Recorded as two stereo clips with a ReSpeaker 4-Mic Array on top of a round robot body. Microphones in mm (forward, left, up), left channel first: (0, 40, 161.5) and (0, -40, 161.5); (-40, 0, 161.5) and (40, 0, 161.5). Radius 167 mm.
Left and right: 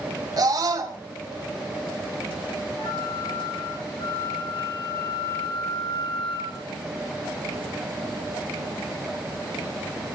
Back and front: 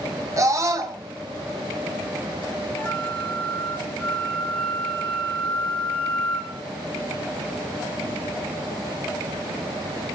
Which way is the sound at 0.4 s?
50° right.